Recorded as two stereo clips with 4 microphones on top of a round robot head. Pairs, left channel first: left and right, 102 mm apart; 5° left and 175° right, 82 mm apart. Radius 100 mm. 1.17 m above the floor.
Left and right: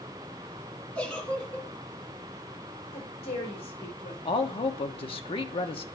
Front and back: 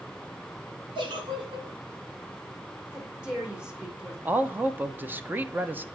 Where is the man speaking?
120° left, 1.0 m.